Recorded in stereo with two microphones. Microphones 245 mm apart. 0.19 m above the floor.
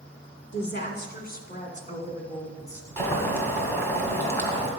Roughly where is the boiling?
Centre.